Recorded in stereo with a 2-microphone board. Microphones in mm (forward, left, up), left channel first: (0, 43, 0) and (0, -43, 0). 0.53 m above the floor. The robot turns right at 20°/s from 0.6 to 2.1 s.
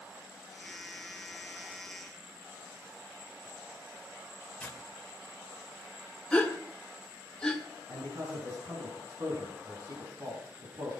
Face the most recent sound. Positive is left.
turn(degrees=-45)  # may be behind; listen again after turning